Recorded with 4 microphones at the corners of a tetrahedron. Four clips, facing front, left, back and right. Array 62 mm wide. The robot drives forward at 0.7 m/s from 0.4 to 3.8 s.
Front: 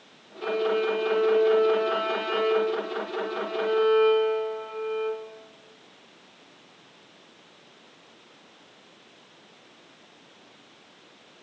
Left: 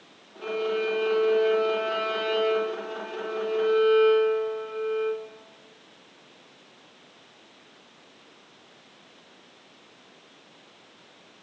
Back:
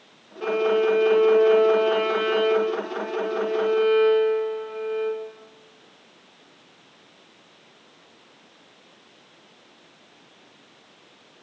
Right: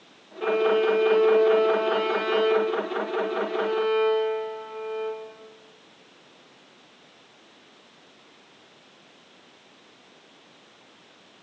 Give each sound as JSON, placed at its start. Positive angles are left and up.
{"t": 0.4, "sound": "a violin", "azimuth_deg": -120, "distance_m": 0.8}